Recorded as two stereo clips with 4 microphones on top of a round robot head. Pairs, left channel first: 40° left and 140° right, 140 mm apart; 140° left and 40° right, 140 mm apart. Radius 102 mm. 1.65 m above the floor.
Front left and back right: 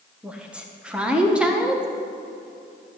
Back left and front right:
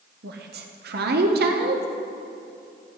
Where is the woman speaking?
60° right, 1.4 m.